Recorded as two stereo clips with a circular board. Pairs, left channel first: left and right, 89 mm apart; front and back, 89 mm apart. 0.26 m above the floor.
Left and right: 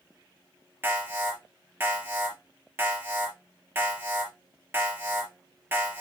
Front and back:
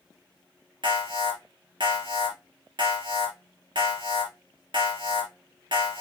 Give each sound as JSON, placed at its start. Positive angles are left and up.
{"t": 0.8, "sound": "an alarm", "azimuth_deg": -155, "distance_m": 4.0}